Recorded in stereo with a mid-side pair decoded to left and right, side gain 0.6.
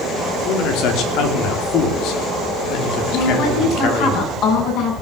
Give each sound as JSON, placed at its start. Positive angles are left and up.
{"t": 0.5, "sound": "a man speaking", "azimuth_deg": 70, "distance_m": 3.0}
{"t": 3.1, "sound": "a woman speaking", "azimuth_deg": 65, "distance_m": 8.5}